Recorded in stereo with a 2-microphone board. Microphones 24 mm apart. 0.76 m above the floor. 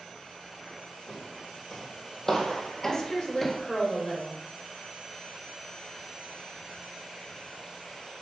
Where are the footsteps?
20° left (ahead or behind), 3 m; by 3.6 s 5° right (ahead or behind), 0.8 m.